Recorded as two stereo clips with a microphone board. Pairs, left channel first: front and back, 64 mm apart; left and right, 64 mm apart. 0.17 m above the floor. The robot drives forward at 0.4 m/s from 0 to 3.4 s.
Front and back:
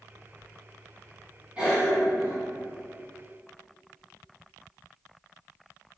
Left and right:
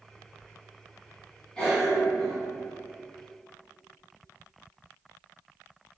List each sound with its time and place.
1.6 s a cough: 150° left, 1.7 m; by 2.4 s 160° left, 1.8 m